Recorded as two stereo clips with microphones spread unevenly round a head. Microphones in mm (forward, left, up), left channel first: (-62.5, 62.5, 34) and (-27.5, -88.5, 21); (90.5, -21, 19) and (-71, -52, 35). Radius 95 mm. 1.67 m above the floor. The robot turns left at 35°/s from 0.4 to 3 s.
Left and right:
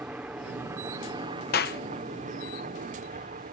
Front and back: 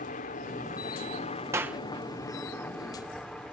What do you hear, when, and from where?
0.0 s a helicopter: straight ahead; by 3.5 s 70° right
1.5 s a clap: 115° left; by 1.8 s 105° left